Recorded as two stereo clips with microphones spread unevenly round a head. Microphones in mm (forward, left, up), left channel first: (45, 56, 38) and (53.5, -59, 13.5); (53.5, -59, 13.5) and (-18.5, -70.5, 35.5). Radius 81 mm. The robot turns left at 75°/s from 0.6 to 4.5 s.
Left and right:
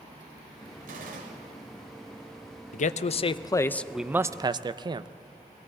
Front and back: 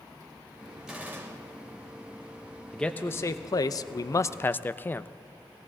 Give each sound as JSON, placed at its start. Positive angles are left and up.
{"t": 0.9, "sound": "a gunshot", "azimuth_deg": -90, "distance_m": 1.8}
{"t": 2.7, "sound": "a man speaking", "azimuth_deg": 90, "distance_m": 0.5}